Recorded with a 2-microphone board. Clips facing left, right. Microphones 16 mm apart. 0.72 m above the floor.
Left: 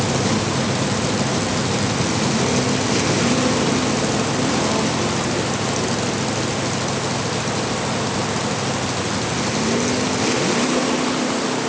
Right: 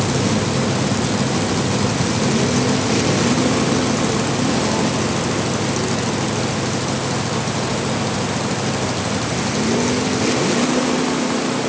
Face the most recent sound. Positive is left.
No sound to turn to.